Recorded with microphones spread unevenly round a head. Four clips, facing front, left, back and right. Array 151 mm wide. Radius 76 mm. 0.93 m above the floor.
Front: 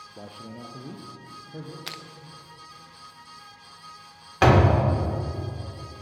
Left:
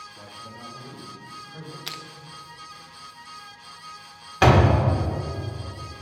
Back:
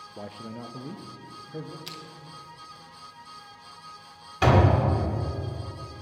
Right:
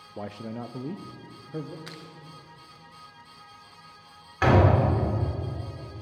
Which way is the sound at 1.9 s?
25° left.